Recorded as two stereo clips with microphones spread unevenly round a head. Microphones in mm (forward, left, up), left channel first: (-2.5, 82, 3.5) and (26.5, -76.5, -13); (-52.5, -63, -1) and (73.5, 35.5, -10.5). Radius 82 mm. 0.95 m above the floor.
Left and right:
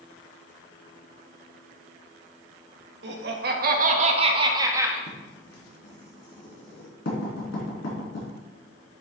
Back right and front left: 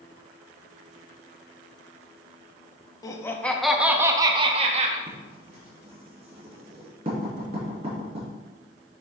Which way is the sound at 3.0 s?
70° right.